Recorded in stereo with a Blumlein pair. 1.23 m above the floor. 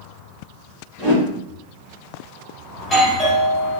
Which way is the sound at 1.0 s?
5° right.